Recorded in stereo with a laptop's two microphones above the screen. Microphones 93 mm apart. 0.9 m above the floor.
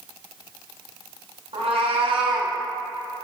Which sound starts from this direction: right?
A cat meowing, at 1.5 s.